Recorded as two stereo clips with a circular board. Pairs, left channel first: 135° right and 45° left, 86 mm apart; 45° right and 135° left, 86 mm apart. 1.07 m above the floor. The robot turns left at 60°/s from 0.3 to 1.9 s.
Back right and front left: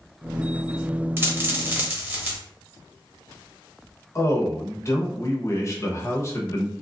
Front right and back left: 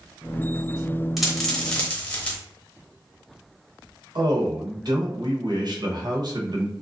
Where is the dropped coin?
55° left, 0.9 m; by 2.4 s 10° left, 0.9 m.